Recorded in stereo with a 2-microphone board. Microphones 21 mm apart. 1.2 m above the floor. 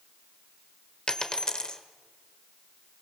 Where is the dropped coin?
35° left (ahead or behind), 1.5 m.